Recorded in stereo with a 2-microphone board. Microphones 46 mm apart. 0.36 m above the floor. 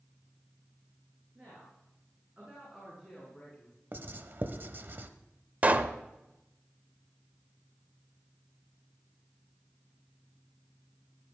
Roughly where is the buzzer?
No buzzer in this recording.